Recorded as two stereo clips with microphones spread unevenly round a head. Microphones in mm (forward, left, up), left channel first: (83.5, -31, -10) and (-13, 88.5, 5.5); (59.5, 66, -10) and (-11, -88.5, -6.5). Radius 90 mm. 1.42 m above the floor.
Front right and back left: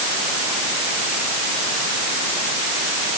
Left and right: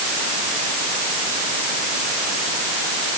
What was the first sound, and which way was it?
Only background noise.